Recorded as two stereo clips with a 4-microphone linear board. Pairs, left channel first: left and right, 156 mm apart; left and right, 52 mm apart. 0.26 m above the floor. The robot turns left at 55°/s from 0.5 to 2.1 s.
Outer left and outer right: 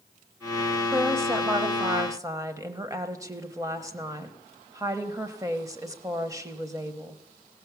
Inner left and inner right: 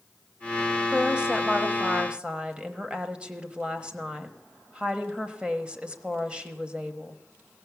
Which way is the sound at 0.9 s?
15° right (ahead or behind).